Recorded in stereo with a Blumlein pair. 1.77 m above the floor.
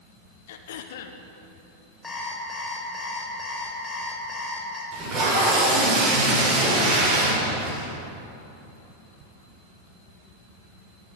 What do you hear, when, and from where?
0.5 s throat clearing: 55° left, 1.3 m
2.0 s an alarm clock: 15° left, 3.5 m
4.9 s tape being pulled: 25° right, 7 m